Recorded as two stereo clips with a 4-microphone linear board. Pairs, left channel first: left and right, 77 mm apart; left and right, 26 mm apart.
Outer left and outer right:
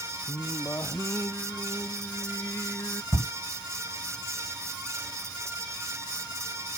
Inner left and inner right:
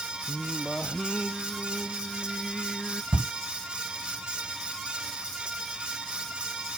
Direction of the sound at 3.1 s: 30° left (ahead or behind).